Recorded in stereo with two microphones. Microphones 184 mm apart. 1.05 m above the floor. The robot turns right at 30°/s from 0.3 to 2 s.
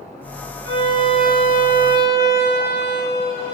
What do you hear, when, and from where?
0.7 s a violin: 75° right, 5 m; by 3.5 s 35° right, 5 m